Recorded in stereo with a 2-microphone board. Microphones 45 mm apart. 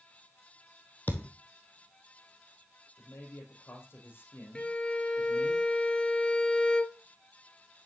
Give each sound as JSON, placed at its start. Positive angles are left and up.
{"t": 1.1, "sound": "a thud", "side_deg": 40, "distance_m": 1.3}
{"t": 3.0, "sound": "a man speaking", "side_deg": 55, "distance_m": 3.0}
{"t": 4.5, "sound": "a violin", "side_deg": 25, "distance_m": 0.7}